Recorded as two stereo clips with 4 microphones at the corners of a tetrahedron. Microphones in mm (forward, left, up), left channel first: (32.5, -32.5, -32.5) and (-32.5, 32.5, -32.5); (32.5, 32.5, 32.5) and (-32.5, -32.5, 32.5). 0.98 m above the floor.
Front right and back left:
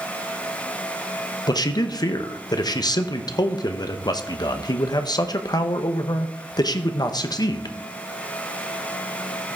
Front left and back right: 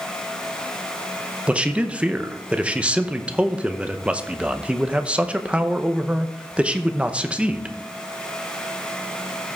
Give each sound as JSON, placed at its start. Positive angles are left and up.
{"t": 1.5, "sound": "a man speaking", "azimuth_deg": -60, "distance_m": 0.7}